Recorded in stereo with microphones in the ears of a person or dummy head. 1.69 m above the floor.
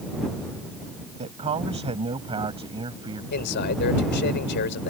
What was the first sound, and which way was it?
A man speaking, 30° right (ahead or behind).